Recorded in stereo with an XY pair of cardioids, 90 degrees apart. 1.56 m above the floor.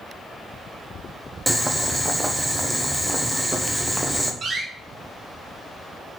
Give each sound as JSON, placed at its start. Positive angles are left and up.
{"t": 1.5, "sound": "boiling", "azimuth_deg": -10, "distance_m": 1.1}
{"t": 4.4, "sound": "a door slam", "azimuth_deg": -55, "distance_m": 1.6}